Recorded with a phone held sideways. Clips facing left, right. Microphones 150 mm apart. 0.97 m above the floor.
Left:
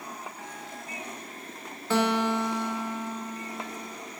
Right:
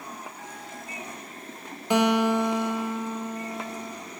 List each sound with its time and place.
1.9 s a guitar: 15° right (ahead or behind), 0.8 m